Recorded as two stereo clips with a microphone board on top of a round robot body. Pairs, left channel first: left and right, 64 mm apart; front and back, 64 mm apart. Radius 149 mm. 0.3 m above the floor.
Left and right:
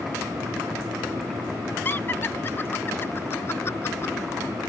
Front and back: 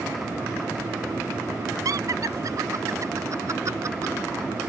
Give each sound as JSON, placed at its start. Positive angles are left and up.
{"t": 1.9, "sound": "laughter", "azimuth_deg": 150}